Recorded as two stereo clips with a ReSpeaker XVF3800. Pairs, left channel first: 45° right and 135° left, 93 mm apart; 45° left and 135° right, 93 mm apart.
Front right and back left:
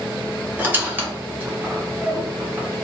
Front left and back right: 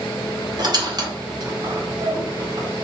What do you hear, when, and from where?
0.6 s a squeak: 160° right, 0.8 m